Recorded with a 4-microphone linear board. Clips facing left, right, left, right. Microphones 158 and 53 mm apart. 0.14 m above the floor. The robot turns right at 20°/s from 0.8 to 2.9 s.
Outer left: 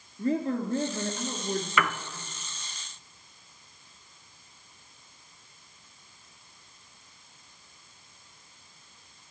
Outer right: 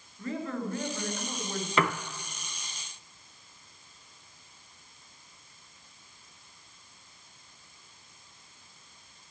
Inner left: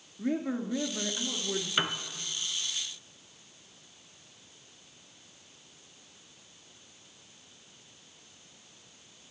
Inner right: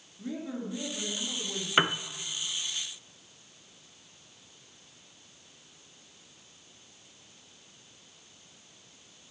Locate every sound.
0.2 s a woman speaking: 35° left (ahead or behind), 2.5 m; by 1.7 s 45° left (ahead or behind), 2.5 m
1.8 s a piano: 30° right (ahead or behind), 0.6 m